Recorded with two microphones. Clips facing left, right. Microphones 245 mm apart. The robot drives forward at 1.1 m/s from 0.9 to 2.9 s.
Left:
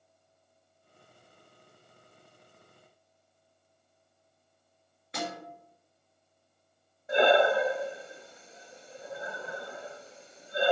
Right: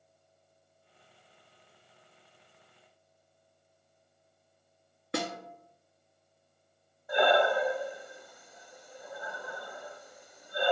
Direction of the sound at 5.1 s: 65° right (ahead or behind).